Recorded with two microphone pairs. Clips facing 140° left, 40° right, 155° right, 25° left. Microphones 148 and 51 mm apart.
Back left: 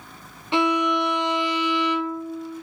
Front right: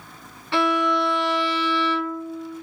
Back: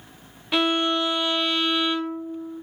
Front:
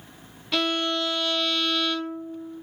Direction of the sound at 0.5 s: 170° left.